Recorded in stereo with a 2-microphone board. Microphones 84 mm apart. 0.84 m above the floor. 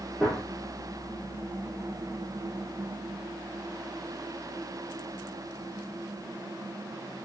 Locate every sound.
0.2 s a gunshot: centre (ahead or behind), 1.3 m